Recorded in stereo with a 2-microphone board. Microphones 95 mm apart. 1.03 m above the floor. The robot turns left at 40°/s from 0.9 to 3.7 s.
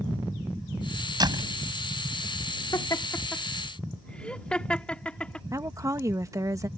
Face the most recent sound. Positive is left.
turn(degrees=-35)  # may be behind; listen again after turning